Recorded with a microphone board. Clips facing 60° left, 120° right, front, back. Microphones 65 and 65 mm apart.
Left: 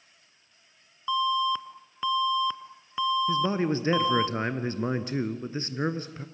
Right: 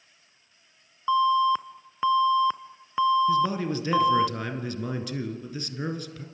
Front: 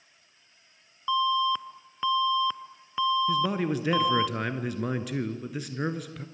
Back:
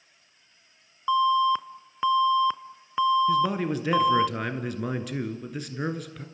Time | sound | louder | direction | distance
1.1 | an alarm | right 5 dB, back 4 dB | 140° right | 0.8 m
3.3 | a man speaking | right 1 dB, back 2 dB | 90° left | 1.8 m